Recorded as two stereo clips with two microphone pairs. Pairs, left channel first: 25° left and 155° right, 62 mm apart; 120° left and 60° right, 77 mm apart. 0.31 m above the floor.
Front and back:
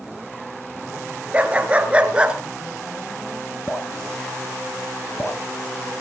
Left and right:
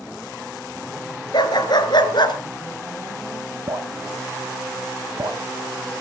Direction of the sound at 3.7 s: 25° right.